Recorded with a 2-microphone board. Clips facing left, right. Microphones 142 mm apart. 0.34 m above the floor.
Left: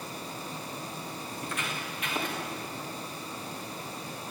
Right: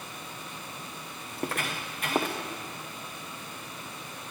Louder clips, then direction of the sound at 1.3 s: Right 6 dB; 60° right (ahead or behind).